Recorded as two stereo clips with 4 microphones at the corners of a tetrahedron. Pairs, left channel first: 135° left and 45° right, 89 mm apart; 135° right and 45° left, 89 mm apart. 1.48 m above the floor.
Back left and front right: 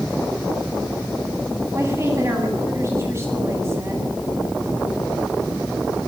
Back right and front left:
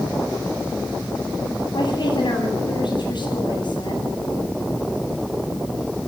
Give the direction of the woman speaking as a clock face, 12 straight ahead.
3 o'clock.